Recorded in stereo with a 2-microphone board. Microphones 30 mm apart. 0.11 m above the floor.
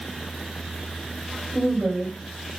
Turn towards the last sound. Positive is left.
turn(degrees=-5)  # may be behind; listen again after turning